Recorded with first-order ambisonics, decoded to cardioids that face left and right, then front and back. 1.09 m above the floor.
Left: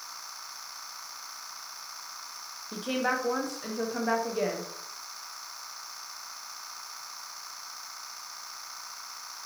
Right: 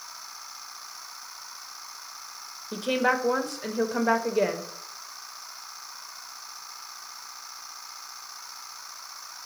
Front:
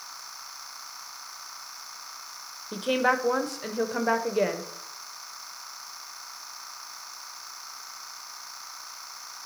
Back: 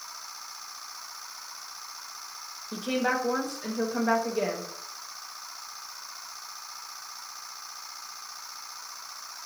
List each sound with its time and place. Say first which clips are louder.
2.7 s a woman speaking: right 5 dB, front 4 dB; 45° right, 0.6 m